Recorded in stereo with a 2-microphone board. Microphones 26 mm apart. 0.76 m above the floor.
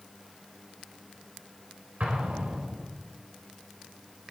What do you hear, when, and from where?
2.0 s an explosion: 65° right (ahead or behind), 4 m